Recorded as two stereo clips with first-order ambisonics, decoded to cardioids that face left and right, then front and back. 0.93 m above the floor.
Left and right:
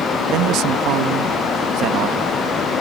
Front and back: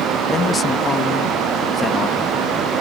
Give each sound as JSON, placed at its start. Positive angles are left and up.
{"t": 0.3, "sound": "a man speaking", "azimuth_deg": -65}